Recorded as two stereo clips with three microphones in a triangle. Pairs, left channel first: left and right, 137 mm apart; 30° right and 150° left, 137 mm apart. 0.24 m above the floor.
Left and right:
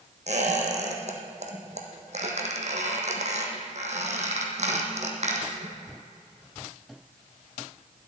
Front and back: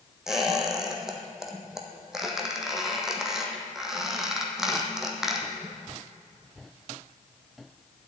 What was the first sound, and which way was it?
A squeak, 125° right.